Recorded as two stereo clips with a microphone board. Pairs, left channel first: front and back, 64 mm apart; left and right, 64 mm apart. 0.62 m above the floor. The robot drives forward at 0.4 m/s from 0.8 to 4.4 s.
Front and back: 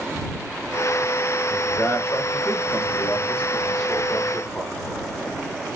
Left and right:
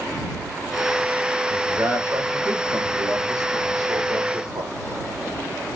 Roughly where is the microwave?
I don't hear a microwave.